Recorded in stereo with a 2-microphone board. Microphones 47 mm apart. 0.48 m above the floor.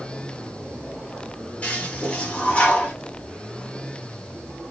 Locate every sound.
1.6 s a toilet flushing: 30° left (ahead or behind), 1.7 m